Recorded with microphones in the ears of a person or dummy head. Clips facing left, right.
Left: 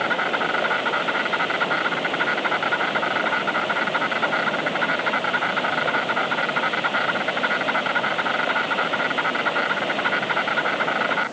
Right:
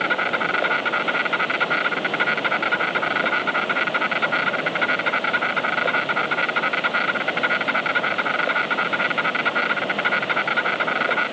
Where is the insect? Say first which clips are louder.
Left 1 dB; 40° right (ahead or behind).